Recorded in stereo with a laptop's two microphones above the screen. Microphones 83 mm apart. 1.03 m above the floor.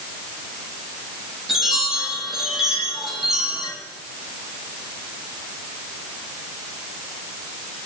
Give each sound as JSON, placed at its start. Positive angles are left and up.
{"t": 1.5, "sound": "a chime", "side_deg": 0, "distance_m": 9.5}